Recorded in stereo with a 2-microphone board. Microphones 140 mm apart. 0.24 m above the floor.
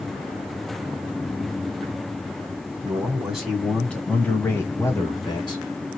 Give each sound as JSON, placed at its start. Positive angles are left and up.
{"t": 2.8, "sound": "a man speaking", "side_deg": -15, "distance_m": 1.9}